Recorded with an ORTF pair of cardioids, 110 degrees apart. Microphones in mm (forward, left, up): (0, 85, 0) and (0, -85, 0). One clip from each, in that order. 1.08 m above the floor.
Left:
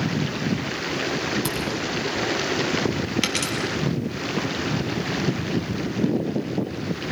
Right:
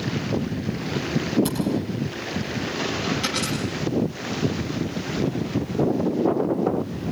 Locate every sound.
1.4 s a camera shutter: 55° left, 8 m
3.2 s a dropped coin: 60° left, 5 m